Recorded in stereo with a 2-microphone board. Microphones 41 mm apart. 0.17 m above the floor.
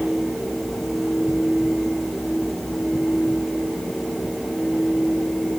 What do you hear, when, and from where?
Only background noise.